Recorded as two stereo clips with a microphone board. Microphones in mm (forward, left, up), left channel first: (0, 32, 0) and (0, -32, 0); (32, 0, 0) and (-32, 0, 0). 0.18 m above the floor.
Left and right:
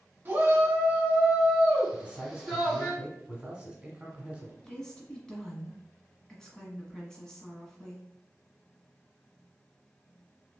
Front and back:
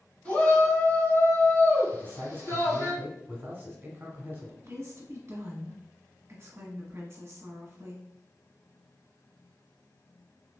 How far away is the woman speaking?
About 1.2 m.